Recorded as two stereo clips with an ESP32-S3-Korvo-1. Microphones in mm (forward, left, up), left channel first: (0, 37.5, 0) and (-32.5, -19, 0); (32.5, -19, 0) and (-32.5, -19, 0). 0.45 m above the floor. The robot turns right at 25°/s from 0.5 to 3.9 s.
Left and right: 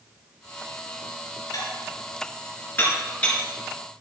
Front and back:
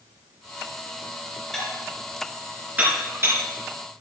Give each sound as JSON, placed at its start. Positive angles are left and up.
{"t": 1.5, "sound": "dishes clattering", "azimuth_deg": 85, "distance_m": 4.0}